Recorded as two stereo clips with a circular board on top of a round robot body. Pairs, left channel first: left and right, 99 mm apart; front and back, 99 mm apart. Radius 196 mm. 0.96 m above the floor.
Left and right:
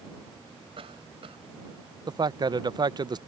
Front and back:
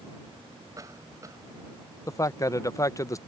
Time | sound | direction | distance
0.8 | a cough | 120° right | ?
2.1 | a man speaking | 55° right | ?